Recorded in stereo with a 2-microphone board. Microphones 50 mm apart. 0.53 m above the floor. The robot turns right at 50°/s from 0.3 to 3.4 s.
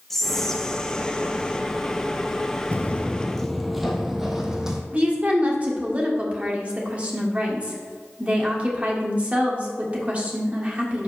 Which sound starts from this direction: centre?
Whispering, at 0.1 s.